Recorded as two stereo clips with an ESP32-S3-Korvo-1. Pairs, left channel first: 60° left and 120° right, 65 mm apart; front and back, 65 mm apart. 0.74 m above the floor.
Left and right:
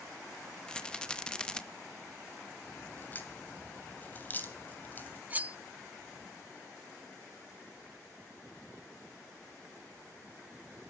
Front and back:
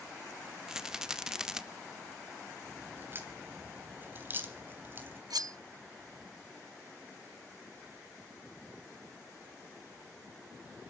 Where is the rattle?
115° left, 0.8 m.